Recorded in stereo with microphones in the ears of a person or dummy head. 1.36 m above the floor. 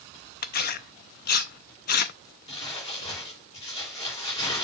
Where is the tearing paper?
50° left (ahead or behind), 0.5 m.